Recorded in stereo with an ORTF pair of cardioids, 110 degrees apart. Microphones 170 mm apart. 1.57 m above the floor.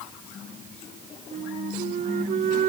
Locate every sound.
1.3 s a flute: 50° right